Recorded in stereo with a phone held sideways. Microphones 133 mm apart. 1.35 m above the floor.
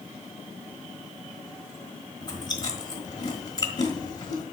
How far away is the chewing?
About 1.4 m.